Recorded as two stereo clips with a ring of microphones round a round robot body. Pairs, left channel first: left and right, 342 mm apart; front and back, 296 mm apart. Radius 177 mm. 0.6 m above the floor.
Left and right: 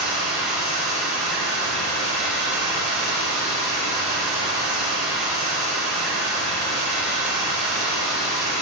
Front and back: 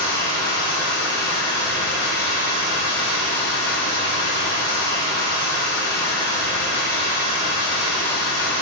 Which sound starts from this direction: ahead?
Running water, at 0.0 s.